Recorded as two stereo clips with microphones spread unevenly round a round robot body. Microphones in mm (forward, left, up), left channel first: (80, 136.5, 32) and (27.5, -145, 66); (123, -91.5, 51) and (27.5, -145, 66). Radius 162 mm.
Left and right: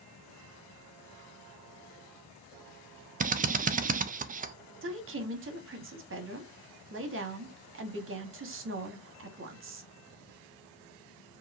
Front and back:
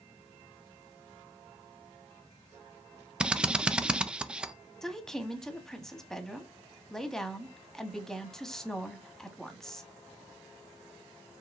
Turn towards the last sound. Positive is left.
turn(degrees=-50)